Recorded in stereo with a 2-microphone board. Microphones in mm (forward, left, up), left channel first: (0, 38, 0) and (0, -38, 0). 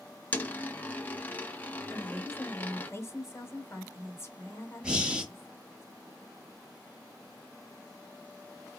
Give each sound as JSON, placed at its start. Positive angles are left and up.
{"t": 0.3, "sound": "a dropped coin", "side_deg": 20, "distance_m": 0.7}
{"t": 1.9, "sound": "a woman speaking", "side_deg": 35, "distance_m": 1.4}
{"t": 4.8, "sound": "breathing", "side_deg": -10, "distance_m": 1.0}